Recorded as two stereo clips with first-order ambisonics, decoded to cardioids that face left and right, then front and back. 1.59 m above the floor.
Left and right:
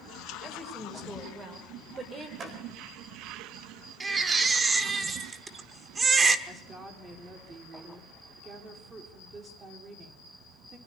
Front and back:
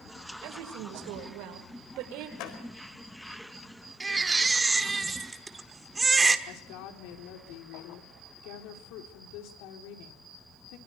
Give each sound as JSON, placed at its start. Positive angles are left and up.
{"t": 0.4, "sound": "a woman speaking", "azimuth_deg": -160, "distance_m": 6.0}
{"t": 2.4, "sound": "a door slam", "azimuth_deg": -25, "distance_m": 4.0}
{"t": 4.0, "sound": "a baby crying", "azimuth_deg": -125, "distance_m": 1.2}
{"t": 6.5, "sound": "a woman speaking", "azimuth_deg": -20, "distance_m": 4.5}